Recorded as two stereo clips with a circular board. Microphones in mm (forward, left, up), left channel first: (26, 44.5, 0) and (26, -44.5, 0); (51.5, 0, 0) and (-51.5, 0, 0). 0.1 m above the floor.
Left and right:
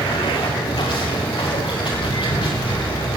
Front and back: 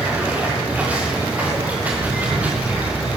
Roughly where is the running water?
Left.